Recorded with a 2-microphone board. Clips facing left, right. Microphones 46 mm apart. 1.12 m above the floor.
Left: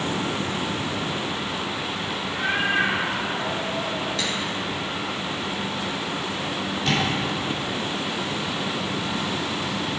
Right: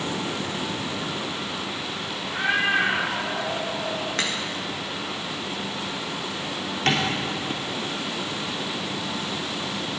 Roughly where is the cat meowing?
Right.